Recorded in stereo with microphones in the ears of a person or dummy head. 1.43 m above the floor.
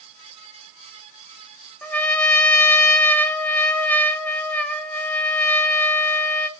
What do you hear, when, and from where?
1.8 s a trumpet: 5° left (ahead or behind), 1.0 m